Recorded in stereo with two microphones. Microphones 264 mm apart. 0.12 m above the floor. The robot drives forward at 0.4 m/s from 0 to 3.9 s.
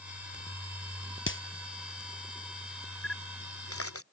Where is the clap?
50° left (ahead or behind).